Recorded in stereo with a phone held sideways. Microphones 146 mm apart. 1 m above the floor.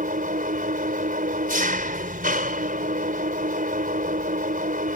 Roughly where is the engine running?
Right.